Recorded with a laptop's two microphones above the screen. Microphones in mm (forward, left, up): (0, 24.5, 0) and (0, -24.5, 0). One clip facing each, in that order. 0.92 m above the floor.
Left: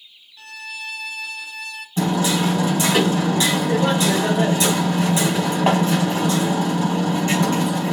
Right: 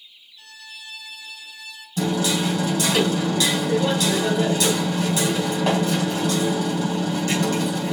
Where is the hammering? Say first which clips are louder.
Left 2 dB; 30° left (ahead or behind), 3.5 m.